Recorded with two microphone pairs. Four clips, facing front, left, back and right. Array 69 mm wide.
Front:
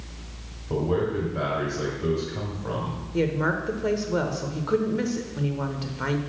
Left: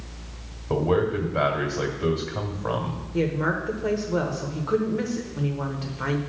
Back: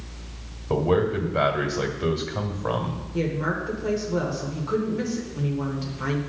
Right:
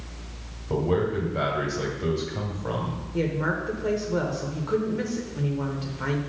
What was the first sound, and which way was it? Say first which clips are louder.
A man speaking: left 2 dB, back 3 dB; 140° left.